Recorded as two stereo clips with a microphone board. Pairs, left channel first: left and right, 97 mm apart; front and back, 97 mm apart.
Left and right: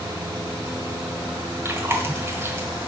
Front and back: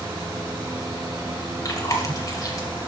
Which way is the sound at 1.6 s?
35° right.